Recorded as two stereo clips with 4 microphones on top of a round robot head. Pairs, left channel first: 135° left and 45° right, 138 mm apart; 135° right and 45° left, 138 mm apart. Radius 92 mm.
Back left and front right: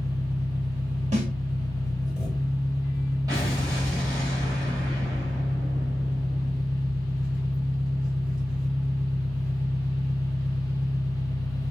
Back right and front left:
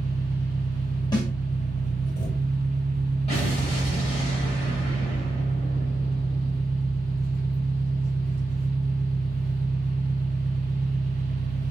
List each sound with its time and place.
0.0 s an engine running: 130° right, 1.3 m
1.1 s a snare drum: 75° right, 1.2 m
3.3 s an explosion: 100° right, 0.6 m